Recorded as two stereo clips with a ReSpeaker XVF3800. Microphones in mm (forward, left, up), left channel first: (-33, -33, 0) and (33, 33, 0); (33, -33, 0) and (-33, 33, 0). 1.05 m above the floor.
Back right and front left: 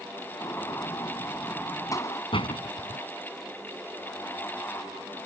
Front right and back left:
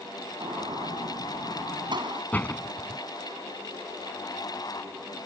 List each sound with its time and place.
0.4 s a gunshot: 170° left
2.3 s a door slam: 120° right